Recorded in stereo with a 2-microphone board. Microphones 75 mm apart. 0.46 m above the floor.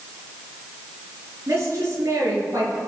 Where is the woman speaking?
40° right (ahead or behind), 7.5 m; by 2.8 s 45° right (ahead or behind), 8.5 m.